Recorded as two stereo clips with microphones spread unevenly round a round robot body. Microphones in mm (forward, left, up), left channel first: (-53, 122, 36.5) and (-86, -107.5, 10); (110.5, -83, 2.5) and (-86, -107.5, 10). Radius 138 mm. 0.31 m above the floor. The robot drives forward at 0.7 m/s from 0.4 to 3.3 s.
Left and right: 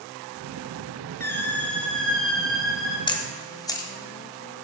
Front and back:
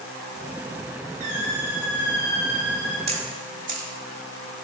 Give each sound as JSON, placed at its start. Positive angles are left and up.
{"t": 1.2, "sound": "a squeak", "azimuth_deg": 160, "distance_m": 0.9}
{"t": 3.1, "sound": "a camera shutter", "azimuth_deg": 150, "distance_m": 0.8}